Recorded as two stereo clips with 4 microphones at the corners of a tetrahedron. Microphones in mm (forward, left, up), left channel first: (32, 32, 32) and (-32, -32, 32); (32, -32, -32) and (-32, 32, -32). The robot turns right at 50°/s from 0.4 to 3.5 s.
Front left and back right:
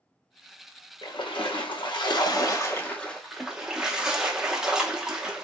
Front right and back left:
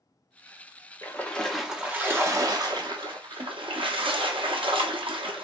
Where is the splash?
20° left, 0.7 m; by 5.4 s 145° left, 0.7 m.